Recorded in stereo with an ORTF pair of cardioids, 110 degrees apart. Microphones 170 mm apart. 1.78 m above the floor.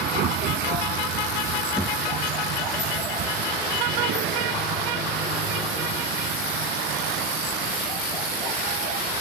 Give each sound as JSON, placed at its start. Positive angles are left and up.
{"t": 0.0, "sound": "a vehicle", "azimuth_deg": -65}
{"t": 1.8, "sound": "a thud", "azimuth_deg": -5}